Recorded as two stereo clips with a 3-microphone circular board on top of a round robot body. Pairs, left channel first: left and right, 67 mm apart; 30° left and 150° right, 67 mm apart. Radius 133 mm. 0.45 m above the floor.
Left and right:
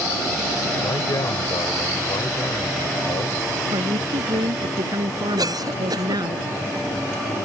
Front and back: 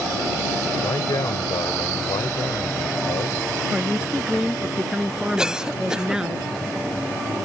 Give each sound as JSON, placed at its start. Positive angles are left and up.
{"t": 0.8, "sound": "a man speaking", "azimuth_deg": 60}
{"t": 3.7, "sound": "a woman speaking", "azimuth_deg": -70}
{"t": 5.4, "sound": "a cough", "azimuth_deg": -70}